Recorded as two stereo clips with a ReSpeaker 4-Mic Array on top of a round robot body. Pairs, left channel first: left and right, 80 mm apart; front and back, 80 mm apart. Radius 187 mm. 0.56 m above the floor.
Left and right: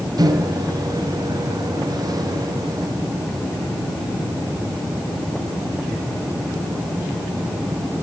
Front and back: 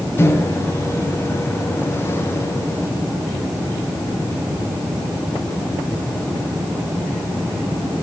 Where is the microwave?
55° right, 2.5 m.